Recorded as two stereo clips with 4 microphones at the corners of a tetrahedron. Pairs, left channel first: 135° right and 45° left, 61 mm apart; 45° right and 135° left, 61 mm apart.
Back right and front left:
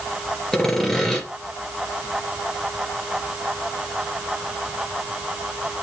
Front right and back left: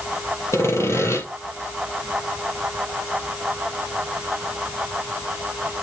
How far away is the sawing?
About 2.5 m.